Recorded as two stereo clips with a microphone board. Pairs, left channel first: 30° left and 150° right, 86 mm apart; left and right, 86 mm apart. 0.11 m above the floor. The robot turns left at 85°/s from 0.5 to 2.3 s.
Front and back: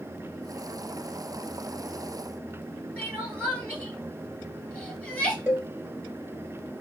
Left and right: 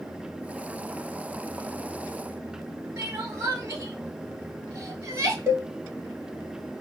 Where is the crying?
45° right, 1.0 m.